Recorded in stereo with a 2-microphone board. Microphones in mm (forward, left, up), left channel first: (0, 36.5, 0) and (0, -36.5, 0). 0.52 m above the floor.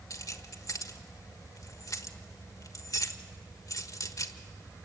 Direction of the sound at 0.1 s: 50° left (ahead or behind).